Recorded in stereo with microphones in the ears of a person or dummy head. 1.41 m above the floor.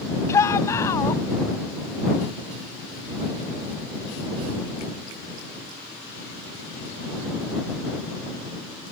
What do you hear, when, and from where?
0.3 s a shout: 20° left (ahead or behind)